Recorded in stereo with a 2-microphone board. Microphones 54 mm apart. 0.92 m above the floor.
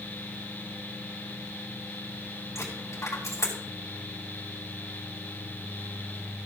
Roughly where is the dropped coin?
Left.